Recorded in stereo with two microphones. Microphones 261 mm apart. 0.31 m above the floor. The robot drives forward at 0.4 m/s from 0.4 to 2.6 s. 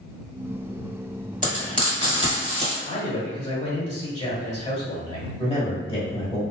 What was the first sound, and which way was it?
Frying, 35° left (ahead or behind).